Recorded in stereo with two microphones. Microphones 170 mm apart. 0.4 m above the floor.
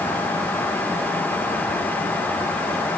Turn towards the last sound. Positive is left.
No sound to turn to.